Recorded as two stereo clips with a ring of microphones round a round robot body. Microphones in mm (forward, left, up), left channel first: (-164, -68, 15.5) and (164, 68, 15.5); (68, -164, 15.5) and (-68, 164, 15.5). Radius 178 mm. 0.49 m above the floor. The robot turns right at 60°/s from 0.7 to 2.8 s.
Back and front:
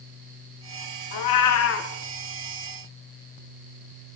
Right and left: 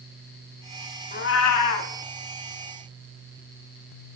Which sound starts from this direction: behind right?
A cat meowing, at 1.1 s.